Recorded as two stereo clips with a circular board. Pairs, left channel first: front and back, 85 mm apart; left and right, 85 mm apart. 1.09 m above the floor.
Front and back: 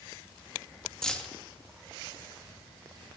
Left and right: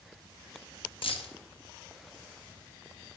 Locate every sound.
1.0 s keys jangling: 80° left, 1.0 m